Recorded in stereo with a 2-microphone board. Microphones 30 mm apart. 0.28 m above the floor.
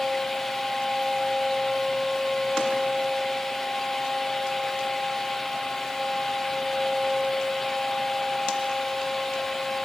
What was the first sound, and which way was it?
Only background noise.